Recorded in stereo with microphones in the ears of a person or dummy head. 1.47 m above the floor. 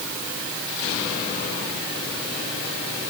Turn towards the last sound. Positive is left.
No sound to turn to.